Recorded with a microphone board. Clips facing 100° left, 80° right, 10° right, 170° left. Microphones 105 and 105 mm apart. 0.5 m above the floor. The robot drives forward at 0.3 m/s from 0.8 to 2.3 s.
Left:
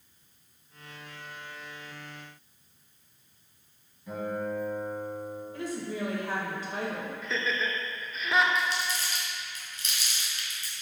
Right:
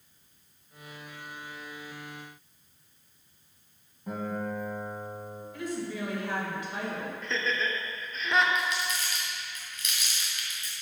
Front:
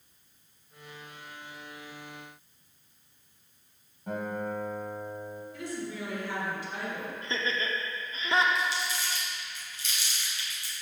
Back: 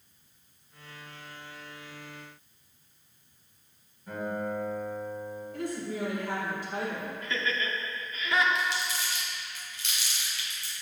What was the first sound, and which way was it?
A guitar, 40° right.